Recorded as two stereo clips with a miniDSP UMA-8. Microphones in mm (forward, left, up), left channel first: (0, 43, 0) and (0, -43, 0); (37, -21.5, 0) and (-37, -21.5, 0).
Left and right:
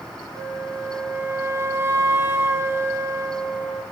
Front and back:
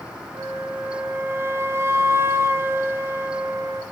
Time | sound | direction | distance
0.3 | a flute | 140° right | 2 m